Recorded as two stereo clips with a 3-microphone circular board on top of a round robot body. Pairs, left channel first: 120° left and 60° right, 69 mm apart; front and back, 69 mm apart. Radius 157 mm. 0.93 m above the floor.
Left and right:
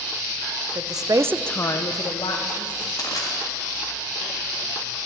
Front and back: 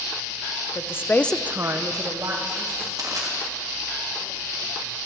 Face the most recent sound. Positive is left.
turn(degrees=155)